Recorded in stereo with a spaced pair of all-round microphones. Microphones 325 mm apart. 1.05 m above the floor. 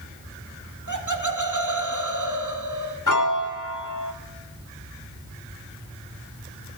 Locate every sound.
0.9 s laughter: 65° right (ahead or behind), 1.8 m
3.1 s a piano: 65° left (ahead or behind), 1.1 m